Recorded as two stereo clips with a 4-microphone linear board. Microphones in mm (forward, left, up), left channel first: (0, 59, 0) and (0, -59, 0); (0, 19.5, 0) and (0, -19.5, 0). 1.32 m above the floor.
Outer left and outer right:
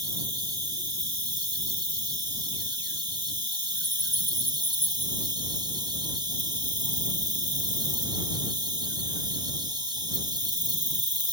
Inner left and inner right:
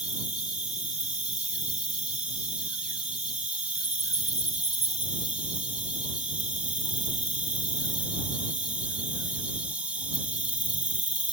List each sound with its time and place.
0.0 s an insect: 35° right (ahead or behind)